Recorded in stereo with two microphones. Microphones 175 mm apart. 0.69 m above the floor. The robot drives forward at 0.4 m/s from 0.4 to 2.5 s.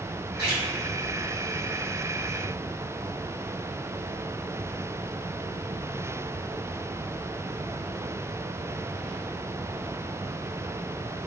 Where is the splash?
70° left (ahead or behind), 1.4 m.